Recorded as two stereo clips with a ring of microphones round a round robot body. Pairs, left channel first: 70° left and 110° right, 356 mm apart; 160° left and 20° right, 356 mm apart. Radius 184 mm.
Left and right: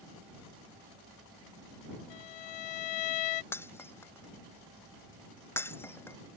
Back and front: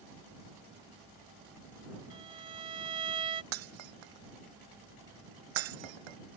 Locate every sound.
2.1 s a violin: 50° left
3.5 s breaking glass: 15° right